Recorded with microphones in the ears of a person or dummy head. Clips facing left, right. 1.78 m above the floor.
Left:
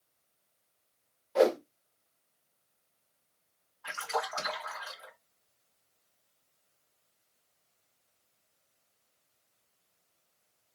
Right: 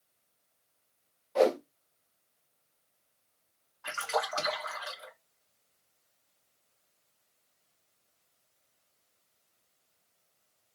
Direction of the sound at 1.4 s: 10° left (ahead or behind).